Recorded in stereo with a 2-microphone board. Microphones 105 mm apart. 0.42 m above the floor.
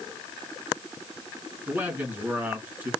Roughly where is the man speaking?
Centre.